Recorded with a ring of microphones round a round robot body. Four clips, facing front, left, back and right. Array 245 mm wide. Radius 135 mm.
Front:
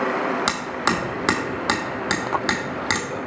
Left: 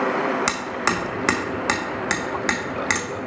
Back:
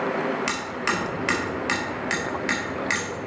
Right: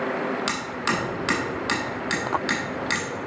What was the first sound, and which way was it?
Hammering, 40° left.